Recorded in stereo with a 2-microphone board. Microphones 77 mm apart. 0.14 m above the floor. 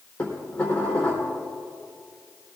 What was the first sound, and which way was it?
Dishes clattering, 20° left (ahead or behind).